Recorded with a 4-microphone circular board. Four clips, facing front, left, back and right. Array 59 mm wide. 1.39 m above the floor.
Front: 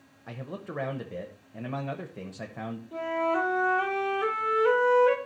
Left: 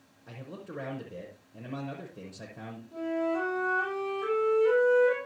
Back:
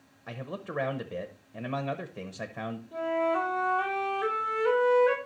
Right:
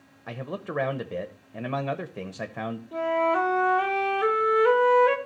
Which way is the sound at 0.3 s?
95° right.